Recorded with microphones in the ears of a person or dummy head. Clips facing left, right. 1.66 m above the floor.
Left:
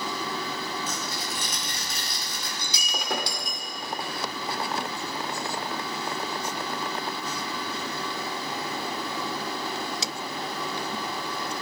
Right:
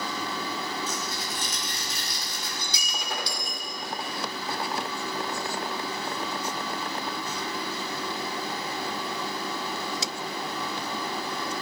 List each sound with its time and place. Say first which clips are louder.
0.9 s tearing paper: even; 70° left (ahead or behind), 4.5 m
2.6 s breaking glass: left 1 dB; 55° left (ahead or behind), 2.5 m